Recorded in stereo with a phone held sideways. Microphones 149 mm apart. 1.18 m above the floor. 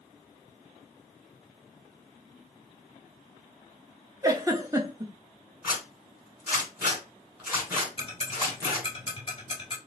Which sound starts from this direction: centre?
A zipper, at 5.6 s.